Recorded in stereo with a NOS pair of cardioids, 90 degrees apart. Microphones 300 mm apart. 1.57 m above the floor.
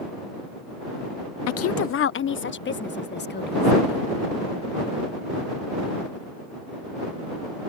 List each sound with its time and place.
1.5 s a woman speaking: 60° left; by 4.1 s 35° left